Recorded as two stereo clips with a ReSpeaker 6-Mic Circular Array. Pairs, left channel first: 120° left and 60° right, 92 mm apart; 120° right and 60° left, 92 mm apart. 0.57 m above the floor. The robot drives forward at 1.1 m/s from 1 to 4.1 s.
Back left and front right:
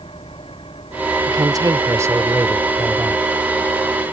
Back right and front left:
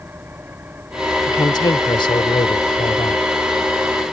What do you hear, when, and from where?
0.0 s an engine running: 130° left; by 4.1 s 135° left
1.3 s a woman speaking: 85° right; by 3.2 s 140° right